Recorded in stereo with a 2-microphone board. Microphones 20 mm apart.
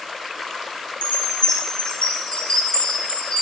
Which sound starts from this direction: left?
A chime, at 1.0 s.